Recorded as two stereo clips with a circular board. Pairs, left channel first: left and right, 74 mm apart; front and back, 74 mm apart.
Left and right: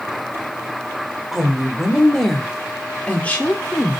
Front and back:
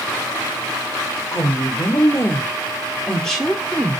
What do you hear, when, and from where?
1.3 s a woman speaking: 5° right, 1.6 m; by 4.0 s 120° left, 1.2 m